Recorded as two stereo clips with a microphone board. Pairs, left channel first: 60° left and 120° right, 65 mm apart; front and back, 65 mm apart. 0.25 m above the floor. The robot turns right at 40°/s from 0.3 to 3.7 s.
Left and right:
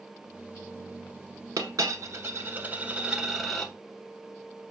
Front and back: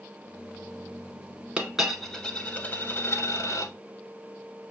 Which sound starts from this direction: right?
A dropped coin, at 1.6 s.